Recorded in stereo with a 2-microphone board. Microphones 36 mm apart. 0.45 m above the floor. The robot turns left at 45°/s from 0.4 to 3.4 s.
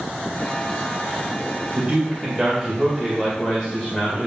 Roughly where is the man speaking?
Behind right.